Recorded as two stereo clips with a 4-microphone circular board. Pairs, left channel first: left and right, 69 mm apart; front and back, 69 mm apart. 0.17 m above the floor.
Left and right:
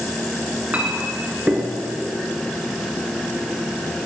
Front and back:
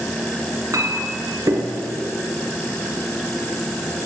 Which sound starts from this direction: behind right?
A clink, at 0.7 s.